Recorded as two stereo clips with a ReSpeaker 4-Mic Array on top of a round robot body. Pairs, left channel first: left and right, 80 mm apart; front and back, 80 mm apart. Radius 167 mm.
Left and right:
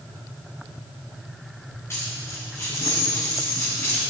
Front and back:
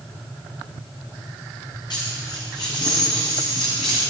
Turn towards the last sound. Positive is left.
turn(degrees=30)